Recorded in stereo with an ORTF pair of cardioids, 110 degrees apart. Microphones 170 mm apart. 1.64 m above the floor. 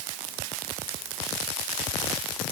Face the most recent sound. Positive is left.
No sound to turn to.